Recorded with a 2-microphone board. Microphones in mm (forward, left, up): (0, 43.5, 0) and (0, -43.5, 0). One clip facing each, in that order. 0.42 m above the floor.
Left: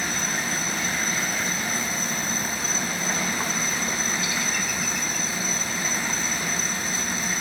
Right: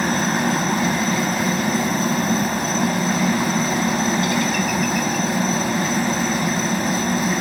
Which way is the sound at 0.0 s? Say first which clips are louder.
Right 9 dB; 55° right (ahead or behind).